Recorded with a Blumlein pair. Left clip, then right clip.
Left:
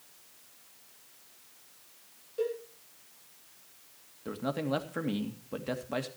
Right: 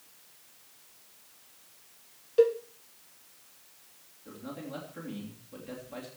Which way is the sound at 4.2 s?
60° left.